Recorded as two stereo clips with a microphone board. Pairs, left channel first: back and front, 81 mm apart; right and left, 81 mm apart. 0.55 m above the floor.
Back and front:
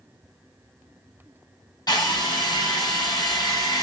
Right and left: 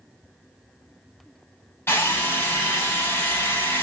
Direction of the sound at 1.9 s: 150° right.